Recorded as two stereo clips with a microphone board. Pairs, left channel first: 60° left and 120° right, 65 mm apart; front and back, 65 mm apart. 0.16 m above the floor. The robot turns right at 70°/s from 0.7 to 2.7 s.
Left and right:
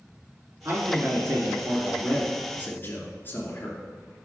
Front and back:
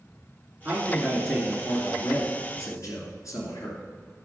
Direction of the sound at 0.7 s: 130° right.